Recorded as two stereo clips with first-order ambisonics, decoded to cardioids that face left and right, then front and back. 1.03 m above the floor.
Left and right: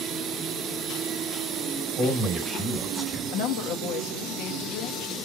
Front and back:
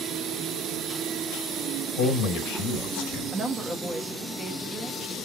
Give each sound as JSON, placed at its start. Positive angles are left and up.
{"t": 2.0, "sound": "a man speaking", "azimuth_deg": -5, "distance_m": 1.5}
{"t": 3.3, "sound": "a woman speaking", "azimuth_deg": 105, "distance_m": 1.0}